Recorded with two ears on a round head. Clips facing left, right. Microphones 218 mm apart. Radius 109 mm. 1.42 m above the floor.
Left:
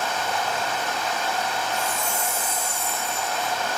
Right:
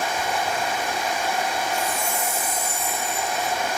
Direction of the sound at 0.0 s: 10° right (ahead or behind).